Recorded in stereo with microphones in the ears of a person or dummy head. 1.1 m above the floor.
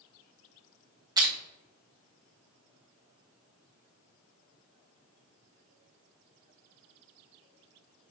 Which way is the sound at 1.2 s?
20° right (ahead or behind).